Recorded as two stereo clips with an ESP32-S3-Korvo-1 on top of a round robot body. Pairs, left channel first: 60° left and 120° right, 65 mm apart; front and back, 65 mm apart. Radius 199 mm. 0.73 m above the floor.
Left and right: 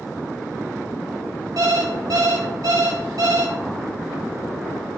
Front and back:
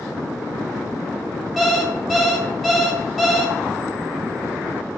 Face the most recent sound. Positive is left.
turn(degrees=-90)